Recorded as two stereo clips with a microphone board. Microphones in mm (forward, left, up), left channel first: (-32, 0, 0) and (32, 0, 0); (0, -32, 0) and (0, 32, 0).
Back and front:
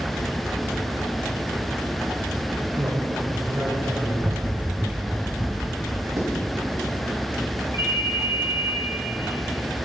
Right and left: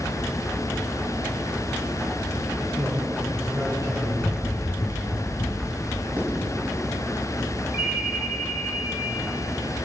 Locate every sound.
2.8 s a man speaking: 55° left, 5.5 m
4.2 s running footsteps: 35° right, 1.1 m; by 6.1 s 105° right, 2.5 m
6.2 s writing: 35° left, 3 m
7.7 s a ringtone: 30° left, 5.5 m